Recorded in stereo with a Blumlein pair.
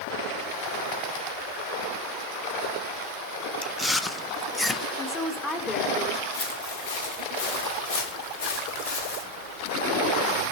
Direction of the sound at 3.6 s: 10° left.